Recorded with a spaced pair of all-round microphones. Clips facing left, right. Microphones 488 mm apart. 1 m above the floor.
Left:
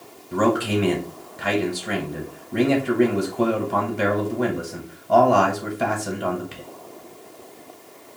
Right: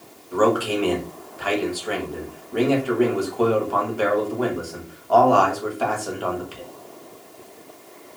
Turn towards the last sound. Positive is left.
turn(degrees=40)  # may be behind; listen again after turning